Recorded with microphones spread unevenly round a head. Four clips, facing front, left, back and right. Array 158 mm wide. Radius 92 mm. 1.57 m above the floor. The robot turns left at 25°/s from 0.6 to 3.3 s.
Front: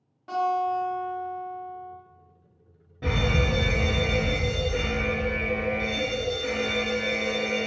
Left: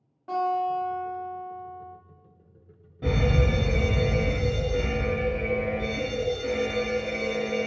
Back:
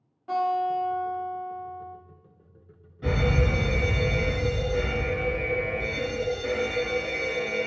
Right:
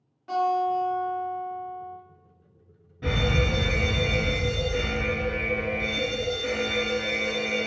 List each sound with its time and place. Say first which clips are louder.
0.3 s a guitar: right 2 dB, even; 75° left, 1.4 m; by 1.9 s 40° left, 1.4 m
3.0 s a fire alarm: left 1 dB, back 1 dB; 40° left, 1.4 m; by 7.7 s 30° left, 1.4 m